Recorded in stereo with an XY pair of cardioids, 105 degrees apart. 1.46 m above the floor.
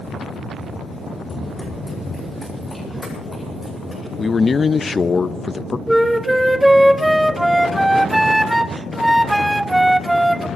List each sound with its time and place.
1.2 s running footsteps: 25° left, 5.5 m; by 4.1 s 10° left, 9 m
4.2 s a man speaking: 30° left, 0.5 m
5.9 s a flute: 5° right, 0.6 m